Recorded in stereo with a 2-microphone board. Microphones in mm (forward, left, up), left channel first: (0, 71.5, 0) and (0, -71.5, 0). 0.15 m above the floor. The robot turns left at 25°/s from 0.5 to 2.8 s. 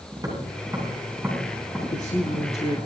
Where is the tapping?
25° right (ahead or behind), 8.5 m; by 2.8 s 30° left (ahead or behind), 8.5 m.